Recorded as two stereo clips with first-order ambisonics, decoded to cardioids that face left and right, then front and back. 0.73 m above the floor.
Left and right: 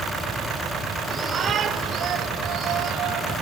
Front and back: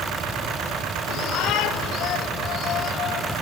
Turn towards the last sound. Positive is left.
turn(degrees=-50)